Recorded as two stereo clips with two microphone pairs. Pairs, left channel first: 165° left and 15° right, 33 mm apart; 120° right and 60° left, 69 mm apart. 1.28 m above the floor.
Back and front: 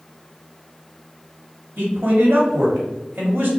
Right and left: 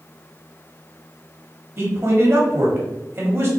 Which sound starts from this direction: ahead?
A man speaking, at 1.8 s.